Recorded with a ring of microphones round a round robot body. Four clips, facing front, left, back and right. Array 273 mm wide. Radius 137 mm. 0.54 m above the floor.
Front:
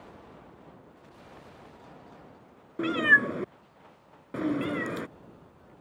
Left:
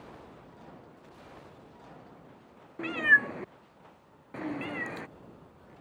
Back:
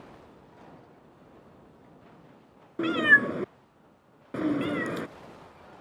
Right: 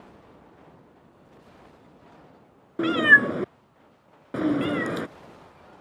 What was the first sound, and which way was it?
A cat meowing, 95° right.